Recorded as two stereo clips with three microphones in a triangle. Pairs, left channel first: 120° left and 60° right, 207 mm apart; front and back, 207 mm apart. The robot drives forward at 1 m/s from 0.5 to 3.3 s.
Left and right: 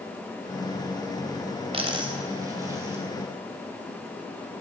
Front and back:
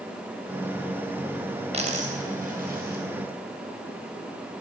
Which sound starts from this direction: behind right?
A dropped coin, at 1.7 s.